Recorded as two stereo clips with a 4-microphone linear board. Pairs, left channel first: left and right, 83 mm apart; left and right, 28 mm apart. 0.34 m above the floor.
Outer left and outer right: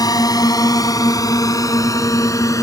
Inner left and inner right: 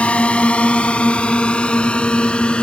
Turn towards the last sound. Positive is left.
turn(degrees=40)  # may be behind; listen again after turning